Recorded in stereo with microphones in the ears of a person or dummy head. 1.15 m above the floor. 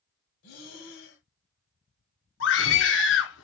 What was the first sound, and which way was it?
Breathing, 55° left (ahead or behind).